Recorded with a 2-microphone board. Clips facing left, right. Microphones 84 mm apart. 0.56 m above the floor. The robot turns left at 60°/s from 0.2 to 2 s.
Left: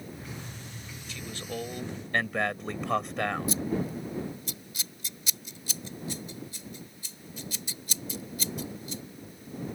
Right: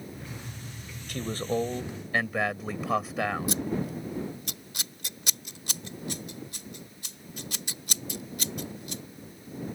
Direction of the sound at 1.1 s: 125° right.